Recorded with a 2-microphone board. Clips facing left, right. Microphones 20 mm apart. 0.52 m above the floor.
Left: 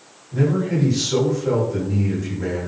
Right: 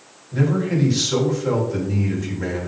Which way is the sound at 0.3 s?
30° right (ahead or behind).